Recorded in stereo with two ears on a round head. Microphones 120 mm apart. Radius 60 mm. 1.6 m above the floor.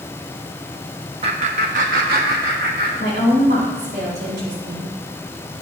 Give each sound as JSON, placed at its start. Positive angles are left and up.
{"t": 1.2, "sound": "laughter", "side_deg": -40, "distance_m": 0.8}
{"t": 3.0, "sound": "a woman speaking", "side_deg": -75, "distance_m": 4.5}